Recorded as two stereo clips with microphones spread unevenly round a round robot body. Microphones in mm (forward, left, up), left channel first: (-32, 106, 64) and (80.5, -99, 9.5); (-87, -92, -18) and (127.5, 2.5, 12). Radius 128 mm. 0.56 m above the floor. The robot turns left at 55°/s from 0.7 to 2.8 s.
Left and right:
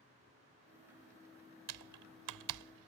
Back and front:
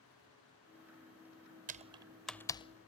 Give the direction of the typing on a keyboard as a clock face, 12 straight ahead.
1 o'clock.